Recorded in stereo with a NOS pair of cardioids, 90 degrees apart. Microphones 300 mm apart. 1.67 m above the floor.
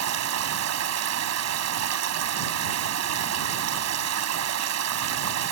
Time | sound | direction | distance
0.0 | running water | 60° right | ?